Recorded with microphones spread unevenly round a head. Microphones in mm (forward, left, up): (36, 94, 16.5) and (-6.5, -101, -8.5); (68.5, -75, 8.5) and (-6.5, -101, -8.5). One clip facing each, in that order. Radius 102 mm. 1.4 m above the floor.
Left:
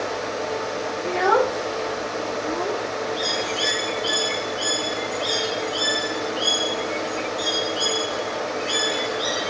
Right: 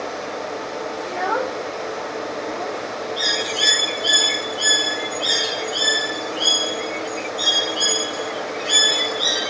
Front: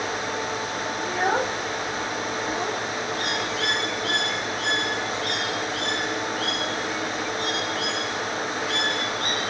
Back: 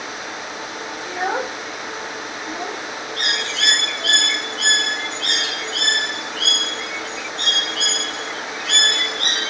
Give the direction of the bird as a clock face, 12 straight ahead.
6 o'clock.